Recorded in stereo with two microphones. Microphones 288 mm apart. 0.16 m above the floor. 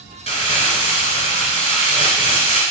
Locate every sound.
0.3 s crumpling: 25° right (ahead or behind), 1.2 m